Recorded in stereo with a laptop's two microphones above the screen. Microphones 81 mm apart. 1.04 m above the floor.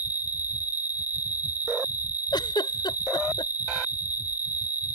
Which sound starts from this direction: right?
An insect, at 0.0 s.